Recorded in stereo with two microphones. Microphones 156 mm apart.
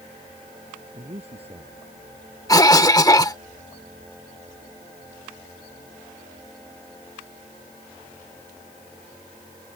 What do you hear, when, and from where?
0.9 s a man speaking: 40° right (ahead or behind)
2.5 s a cough: 25° left (ahead or behind)